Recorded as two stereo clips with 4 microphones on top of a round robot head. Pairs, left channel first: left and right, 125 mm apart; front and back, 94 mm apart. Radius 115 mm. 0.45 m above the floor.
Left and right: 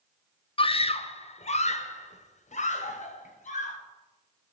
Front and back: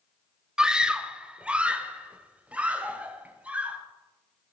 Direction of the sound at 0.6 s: 100° left.